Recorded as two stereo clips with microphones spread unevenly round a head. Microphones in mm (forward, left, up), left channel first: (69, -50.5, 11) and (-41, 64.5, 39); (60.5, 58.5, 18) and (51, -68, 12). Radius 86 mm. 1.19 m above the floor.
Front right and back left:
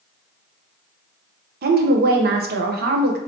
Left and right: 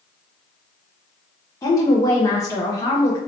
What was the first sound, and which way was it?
A woman speaking, 150° left.